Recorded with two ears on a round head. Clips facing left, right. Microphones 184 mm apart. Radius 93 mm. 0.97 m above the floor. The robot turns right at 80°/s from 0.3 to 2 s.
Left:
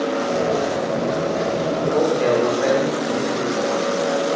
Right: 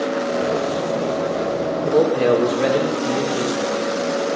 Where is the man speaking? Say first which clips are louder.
Right 3 dB; 60° right (ahead or behind), 3 m; by 3.8 s 75° right (ahead or behind), 3 m.